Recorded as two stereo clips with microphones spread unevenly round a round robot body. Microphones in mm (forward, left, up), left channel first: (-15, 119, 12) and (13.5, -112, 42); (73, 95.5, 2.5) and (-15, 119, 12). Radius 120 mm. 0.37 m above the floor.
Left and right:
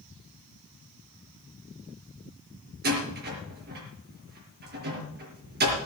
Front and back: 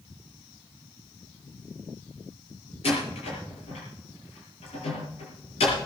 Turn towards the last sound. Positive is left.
turn(degrees=-30)